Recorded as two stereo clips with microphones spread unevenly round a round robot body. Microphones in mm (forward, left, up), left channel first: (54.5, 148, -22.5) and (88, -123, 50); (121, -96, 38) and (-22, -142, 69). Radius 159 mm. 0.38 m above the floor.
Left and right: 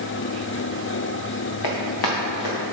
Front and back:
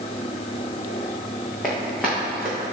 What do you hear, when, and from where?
1.6 s running footsteps: 105° left, 1.8 m; by 2.7 s 110° left, 3 m